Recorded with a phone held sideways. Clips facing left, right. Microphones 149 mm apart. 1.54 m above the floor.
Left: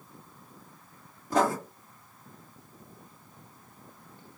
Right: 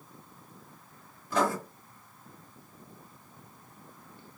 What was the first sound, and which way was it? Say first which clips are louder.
Writing: left 3 dB; 45° left (ahead or behind).